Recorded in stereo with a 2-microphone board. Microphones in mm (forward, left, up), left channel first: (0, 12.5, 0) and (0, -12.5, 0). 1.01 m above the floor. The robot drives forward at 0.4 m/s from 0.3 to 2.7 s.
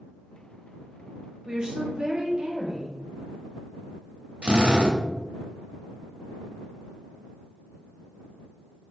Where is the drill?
50° right (ahead or behind), 0.6 m.